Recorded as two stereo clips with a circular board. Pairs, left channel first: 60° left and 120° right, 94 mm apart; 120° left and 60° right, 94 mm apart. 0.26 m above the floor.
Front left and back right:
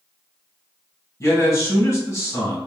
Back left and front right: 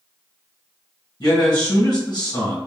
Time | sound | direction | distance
1.2 | a man speaking | 105° left | 1.8 m